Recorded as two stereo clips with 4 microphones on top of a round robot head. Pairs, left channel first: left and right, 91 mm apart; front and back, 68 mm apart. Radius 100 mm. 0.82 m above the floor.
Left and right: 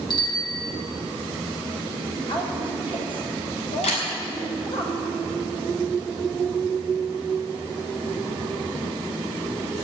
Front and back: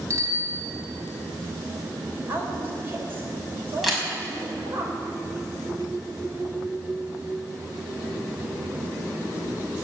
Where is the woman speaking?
120° left, 4.5 m.